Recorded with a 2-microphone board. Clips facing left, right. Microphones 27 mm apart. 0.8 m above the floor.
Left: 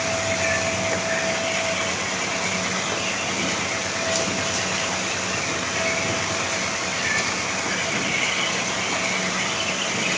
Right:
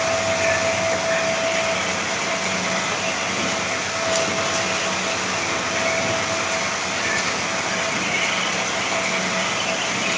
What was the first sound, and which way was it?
Only background noise.